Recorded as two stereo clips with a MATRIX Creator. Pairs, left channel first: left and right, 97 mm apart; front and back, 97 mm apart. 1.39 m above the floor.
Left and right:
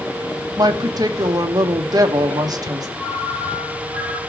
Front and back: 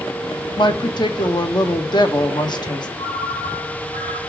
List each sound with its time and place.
0.6 s a woman speaking: 40° right, 1.3 m
3.0 s a ringtone: 5° right, 4 m